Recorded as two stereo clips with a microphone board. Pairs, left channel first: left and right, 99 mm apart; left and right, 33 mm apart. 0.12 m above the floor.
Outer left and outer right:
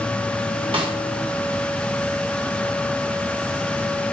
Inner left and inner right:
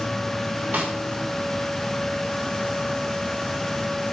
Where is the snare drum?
65° right (ahead or behind), 1.1 m.